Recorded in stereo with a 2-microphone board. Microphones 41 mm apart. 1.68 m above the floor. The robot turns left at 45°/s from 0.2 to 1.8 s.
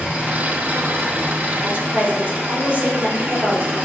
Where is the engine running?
40° right, 2.5 m; by 3.9 s 110° right, 2.5 m.